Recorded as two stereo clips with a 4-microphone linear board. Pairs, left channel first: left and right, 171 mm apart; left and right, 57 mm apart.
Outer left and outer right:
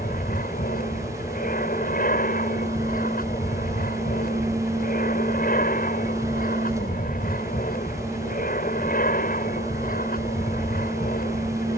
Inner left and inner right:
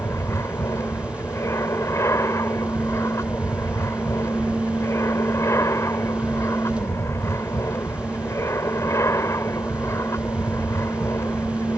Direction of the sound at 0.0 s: 55° left (ahead or behind).